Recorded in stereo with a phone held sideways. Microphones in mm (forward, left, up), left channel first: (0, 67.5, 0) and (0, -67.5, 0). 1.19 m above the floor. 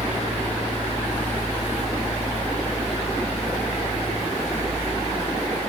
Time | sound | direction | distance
0.0 | a fan | 50° left (ahead or behind) | 5.5 m